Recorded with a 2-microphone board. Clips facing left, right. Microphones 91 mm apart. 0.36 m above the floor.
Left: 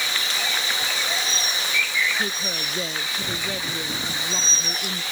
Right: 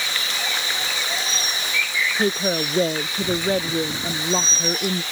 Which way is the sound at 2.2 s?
40° right (ahead or behind).